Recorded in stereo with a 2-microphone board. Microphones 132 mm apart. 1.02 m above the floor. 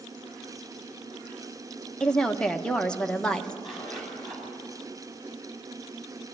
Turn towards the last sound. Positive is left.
turn(degrees=5)  # may be behind; listen again after turning